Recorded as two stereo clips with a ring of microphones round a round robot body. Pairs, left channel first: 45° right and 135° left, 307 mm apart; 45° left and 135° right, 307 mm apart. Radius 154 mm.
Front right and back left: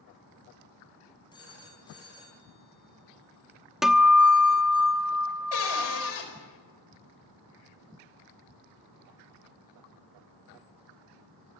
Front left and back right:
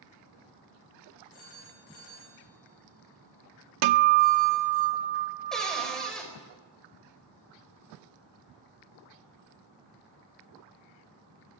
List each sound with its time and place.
1.3 s a phone ringing: 30° left, 6.5 m
3.8 s a guitar: 135° right, 0.9 m
5.5 s a cupboard door: 45° right, 4.5 m